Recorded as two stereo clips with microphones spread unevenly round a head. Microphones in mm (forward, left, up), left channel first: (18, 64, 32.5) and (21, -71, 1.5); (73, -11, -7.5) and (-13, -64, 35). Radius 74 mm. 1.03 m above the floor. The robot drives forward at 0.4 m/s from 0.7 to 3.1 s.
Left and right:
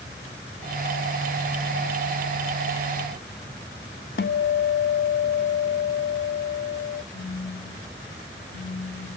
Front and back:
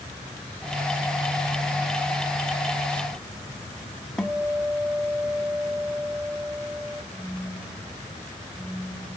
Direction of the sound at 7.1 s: 95° left.